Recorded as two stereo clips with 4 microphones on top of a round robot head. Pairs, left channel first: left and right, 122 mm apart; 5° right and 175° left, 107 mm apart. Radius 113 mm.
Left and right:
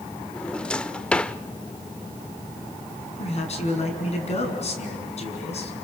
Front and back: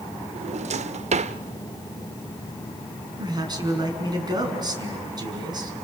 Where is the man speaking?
125° left, 6 m.